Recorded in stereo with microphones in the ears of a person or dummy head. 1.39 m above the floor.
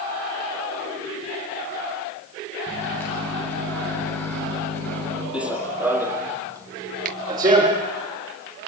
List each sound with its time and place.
2.7 s a microwave: 15° left (ahead or behind), 8 m
5.3 s running footsteps: 5° right (ahead or behind), 2 m; by 7.9 s 25° right (ahead or behind), 3.5 m
7.0 s a finger snap: 50° right (ahead or behind), 1.7 m